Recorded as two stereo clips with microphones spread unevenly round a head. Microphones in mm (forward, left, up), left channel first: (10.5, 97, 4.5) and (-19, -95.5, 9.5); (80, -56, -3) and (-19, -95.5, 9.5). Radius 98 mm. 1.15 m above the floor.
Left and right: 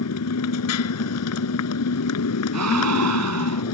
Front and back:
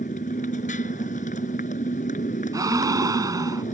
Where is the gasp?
100° right.